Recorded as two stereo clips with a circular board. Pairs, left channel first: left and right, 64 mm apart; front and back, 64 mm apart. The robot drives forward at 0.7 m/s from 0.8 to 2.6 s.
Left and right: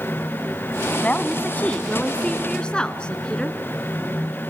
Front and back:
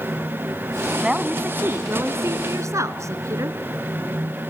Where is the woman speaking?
120° left, 1.2 m; by 3.6 s 160° left, 1.8 m.